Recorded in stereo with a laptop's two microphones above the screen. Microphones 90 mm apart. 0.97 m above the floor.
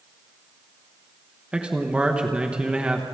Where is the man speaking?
10° right (ahead or behind), 1.1 m.